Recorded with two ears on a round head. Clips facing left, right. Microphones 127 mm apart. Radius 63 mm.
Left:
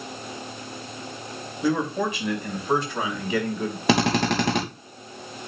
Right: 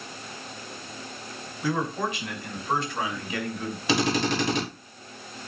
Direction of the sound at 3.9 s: 50° left (ahead or behind).